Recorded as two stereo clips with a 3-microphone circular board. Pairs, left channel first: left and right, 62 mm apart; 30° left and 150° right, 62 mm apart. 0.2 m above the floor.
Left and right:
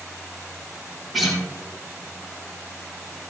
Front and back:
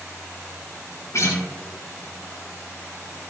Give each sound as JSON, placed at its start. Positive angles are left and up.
{"t": 1.1, "sound": "a guitar", "azimuth_deg": 0, "distance_m": 4.0}